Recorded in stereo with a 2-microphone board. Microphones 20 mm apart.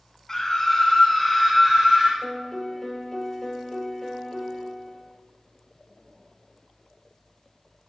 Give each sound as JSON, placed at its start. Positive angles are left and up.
{"t": 0.3, "sound": "a scream", "side_deg": 20, "distance_m": 1.2}
{"t": 2.2, "sound": "a piano", "side_deg": 20, "distance_m": 0.8}